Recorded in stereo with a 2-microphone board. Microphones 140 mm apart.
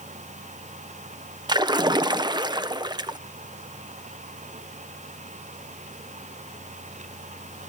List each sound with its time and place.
1.5 s a splash: 30° right (ahead or behind), 0.5 m